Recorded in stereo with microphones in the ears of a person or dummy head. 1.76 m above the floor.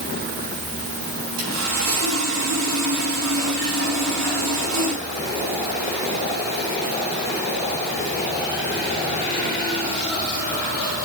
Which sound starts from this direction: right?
Sawing, at 1.4 s.